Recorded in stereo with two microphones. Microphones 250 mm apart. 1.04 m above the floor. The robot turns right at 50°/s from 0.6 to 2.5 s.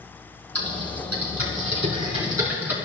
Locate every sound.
0.6 s typing on a keyboard: 75° right (ahead or behind), 3.5 m; by 2.8 s 10° right (ahead or behind), 3.5 m